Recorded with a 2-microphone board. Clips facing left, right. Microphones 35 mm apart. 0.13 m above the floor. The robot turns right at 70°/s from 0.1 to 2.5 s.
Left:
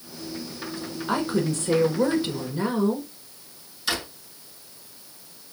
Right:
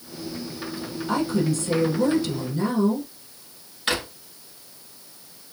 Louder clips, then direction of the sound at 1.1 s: Right 1 dB; 55° left.